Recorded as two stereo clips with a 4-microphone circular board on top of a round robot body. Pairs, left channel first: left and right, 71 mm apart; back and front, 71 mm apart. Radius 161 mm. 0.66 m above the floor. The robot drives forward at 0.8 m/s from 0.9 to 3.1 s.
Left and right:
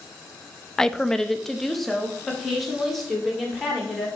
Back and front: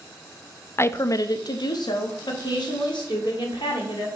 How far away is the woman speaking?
About 0.5 m.